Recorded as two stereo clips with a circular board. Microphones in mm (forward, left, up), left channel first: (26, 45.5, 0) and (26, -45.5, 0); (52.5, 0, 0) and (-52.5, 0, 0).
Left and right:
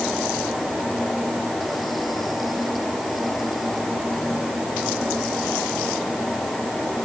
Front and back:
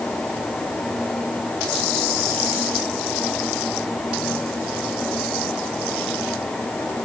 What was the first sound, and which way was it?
Only background noise.